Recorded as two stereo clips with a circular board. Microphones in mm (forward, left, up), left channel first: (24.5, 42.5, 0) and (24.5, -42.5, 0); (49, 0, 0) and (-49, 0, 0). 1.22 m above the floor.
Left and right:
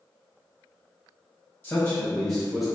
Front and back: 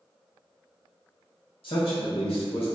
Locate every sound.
1.6 s a man speaking: 20° left, 1.5 m; by 2.7 s straight ahead, 1.3 m